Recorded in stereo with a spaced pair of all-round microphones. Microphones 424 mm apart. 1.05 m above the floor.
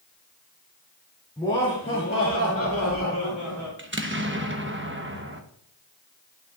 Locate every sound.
1.4 s laughter: 10° left (ahead or behind), 2.5 m; by 3.7 s 45° left (ahead or behind), 3 m
3.8 s an explosion: 25° right (ahead or behind), 1.0 m